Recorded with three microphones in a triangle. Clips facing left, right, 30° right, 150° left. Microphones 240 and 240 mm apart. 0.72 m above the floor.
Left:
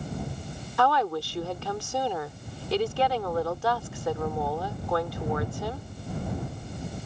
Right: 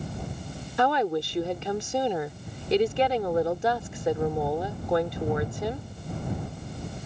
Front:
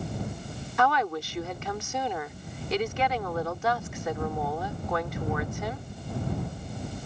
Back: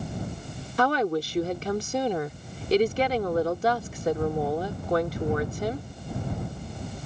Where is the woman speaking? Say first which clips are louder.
Right 2 dB, back 4 dB; 155° right.